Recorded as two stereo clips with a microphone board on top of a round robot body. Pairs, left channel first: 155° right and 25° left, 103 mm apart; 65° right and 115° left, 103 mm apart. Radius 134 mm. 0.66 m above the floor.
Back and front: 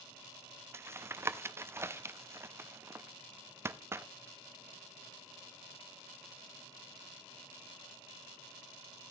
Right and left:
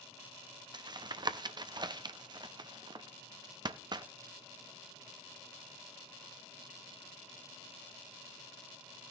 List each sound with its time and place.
0.7 s tapping: 80° left, 0.8 m